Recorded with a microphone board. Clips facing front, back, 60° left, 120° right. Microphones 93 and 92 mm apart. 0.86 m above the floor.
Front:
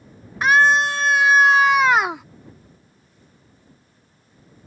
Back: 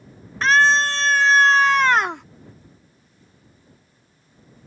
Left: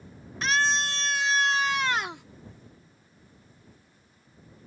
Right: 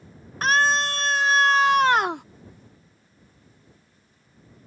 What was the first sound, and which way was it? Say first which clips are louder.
A scream: front 1 dB, right 5 dB; 75° right.